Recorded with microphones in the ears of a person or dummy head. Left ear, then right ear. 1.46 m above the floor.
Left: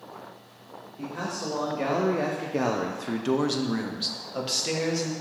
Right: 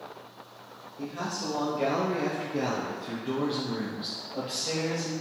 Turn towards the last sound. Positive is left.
turn(degrees=40)  # may be behind; listen again after turning